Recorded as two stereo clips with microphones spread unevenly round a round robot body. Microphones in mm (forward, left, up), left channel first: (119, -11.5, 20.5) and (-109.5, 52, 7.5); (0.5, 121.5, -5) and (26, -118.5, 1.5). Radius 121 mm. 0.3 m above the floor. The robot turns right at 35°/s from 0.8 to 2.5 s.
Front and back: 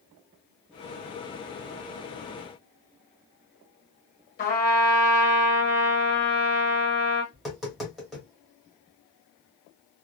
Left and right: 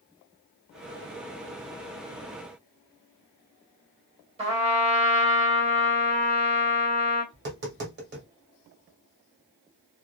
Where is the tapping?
110° right, 1.4 m.